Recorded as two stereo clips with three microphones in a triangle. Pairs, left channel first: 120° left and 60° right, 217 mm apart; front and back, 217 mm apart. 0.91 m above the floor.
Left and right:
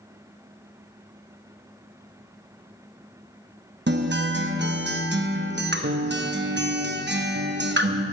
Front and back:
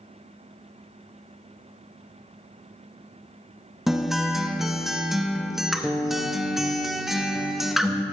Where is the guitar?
90° right, 0.8 m.